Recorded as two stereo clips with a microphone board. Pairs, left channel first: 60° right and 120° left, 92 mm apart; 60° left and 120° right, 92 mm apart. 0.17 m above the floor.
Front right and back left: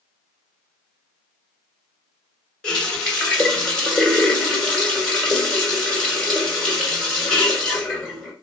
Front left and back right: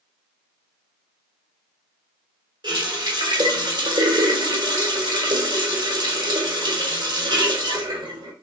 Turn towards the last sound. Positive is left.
turn(degrees=-140)